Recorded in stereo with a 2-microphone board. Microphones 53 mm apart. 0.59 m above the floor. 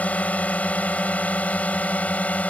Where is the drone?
30° left (ahead or behind).